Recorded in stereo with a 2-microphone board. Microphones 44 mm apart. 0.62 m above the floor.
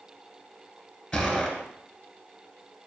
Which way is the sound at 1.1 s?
10° left (ahead or behind).